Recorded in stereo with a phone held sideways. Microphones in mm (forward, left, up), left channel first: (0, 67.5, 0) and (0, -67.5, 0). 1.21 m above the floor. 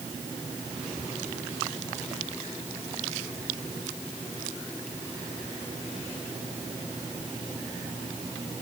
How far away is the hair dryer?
No hair dryer in this recording.